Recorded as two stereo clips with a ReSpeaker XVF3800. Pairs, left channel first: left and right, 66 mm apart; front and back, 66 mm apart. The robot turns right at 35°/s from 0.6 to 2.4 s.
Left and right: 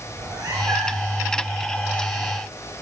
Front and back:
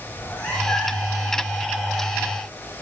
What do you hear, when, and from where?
0.1 s a cat meowing: 80° right, 4 m; by 1.2 s 55° right, 4 m